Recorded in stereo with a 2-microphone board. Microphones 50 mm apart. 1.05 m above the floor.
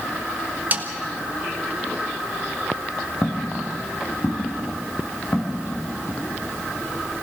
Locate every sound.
0.7 s a snare drum: 35° right (ahead or behind), 1.7 m
3.2 s footsteps: 40° left (ahead or behind), 3.5 m; by 6.2 s 55° left (ahead or behind), 5.5 m